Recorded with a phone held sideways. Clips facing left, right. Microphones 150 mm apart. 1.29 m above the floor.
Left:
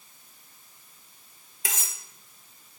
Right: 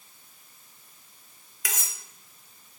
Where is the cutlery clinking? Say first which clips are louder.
Left 1 dB; 30° left (ahead or behind), 0.6 m.